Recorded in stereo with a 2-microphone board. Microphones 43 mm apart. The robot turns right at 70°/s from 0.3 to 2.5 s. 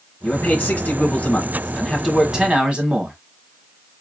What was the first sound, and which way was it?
A man speaking, 60° left.